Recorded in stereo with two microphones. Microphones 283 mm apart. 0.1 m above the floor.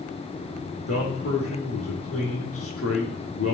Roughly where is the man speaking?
Left.